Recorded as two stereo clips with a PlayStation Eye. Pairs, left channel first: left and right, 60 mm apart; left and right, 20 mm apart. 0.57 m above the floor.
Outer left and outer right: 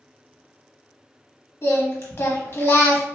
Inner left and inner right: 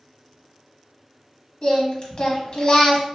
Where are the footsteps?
No footsteps in this recording.